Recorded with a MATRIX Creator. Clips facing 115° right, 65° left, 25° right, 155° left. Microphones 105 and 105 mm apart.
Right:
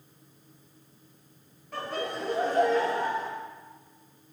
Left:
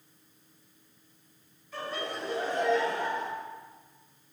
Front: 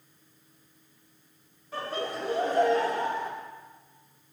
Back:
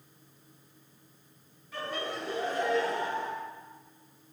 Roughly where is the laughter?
Right.